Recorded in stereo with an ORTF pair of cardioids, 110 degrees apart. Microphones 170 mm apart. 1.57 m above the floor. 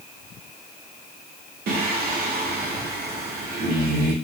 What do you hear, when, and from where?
1.7 s singing: 65° right, 1.0 m